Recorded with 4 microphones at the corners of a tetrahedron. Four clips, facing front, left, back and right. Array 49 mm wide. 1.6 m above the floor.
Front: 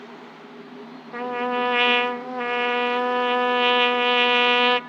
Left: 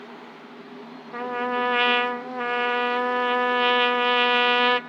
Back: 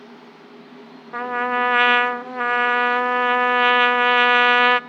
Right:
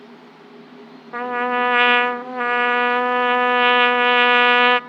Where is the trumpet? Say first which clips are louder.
Right 5 dB, back 3 dB; 125° right, 0.6 m.